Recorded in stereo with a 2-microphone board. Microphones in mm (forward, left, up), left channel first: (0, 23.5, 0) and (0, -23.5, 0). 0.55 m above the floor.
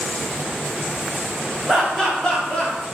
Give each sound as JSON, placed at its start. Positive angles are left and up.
{"t": 1.7, "sound": "laughter", "side_deg": 5, "distance_m": 1.9}